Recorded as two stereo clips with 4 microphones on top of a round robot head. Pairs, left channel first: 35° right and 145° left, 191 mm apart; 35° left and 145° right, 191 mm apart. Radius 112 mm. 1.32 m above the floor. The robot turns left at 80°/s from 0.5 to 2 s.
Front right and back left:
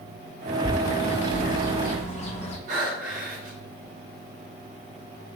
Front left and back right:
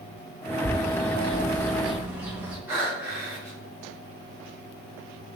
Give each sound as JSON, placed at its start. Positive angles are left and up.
{"t": 0.6, "sound": "a bird", "azimuth_deg": 40, "distance_m": 0.5}
{"t": 2.7, "sound": "breathing", "azimuth_deg": 145, "distance_m": 1.1}